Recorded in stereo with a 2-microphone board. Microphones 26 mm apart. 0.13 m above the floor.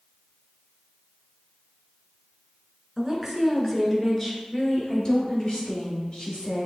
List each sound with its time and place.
3.0 s a woman speaking: 20° right (ahead or behind), 1.2 m; by 6.7 s 40° left (ahead or behind), 2.5 m